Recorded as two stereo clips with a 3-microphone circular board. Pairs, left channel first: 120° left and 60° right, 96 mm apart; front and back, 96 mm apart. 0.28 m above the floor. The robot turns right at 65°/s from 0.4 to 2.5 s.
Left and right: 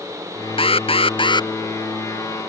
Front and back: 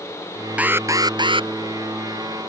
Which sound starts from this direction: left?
An alarm, at 0.6 s.